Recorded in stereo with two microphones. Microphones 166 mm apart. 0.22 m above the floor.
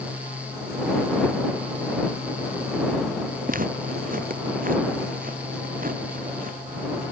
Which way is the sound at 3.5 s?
55° right (ahead or behind).